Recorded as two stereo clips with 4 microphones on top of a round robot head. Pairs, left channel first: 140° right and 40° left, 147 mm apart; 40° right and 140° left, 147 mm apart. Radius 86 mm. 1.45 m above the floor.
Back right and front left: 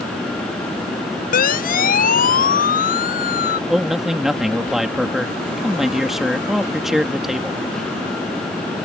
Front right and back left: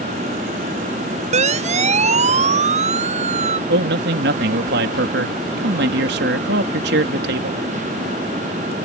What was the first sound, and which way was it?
A siren, 175° right.